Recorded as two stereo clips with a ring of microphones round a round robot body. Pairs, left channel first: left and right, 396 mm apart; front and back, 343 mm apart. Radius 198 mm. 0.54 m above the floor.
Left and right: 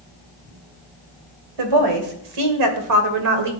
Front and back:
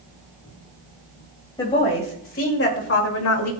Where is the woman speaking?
80° right, 2.5 m; by 3.5 s 45° right, 2 m.